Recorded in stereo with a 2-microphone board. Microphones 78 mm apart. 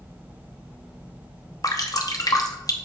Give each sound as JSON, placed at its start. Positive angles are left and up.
{"t": 1.6, "sound": "dripping", "side_deg": 50, "distance_m": 0.8}